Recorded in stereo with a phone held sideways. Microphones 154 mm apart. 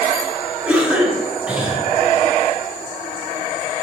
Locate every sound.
0.7 s a cough: 10° right (ahead or behind), 1.4 m